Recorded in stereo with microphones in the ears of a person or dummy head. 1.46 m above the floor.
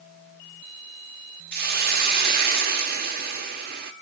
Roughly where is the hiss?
Right.